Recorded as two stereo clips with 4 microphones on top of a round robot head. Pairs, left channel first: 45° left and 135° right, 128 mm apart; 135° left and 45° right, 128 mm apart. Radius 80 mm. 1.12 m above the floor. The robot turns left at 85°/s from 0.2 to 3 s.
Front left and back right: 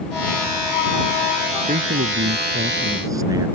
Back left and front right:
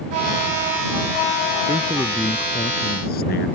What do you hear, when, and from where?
1.7 s a man speaking: 95° right; by 3.5 s 155° left